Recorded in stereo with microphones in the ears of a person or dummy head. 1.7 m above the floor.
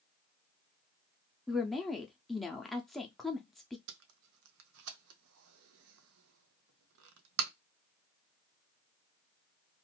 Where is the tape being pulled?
75° right (ahead or behind), 0.6 m.